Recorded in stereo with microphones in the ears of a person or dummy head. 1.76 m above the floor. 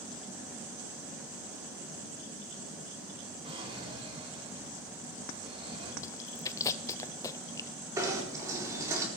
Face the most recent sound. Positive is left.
turn(degrees=-20)  # may be behind; listen again after turning